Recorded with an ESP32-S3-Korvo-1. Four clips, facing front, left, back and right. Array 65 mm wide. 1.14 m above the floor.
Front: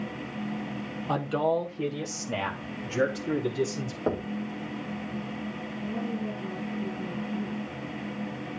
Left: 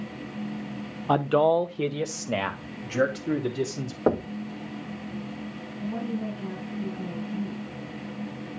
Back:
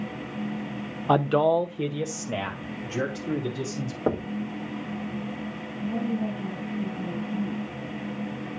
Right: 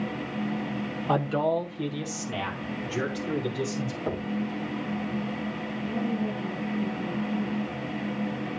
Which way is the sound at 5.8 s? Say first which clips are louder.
Right 1 dB, back 5 dB; 135° left.